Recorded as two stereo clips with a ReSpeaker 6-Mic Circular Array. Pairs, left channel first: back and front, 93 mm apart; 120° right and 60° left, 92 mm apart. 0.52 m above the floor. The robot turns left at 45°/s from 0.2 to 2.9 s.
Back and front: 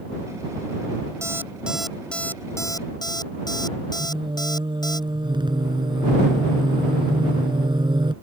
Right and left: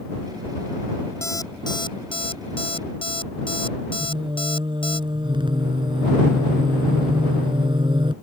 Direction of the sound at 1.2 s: 60° right.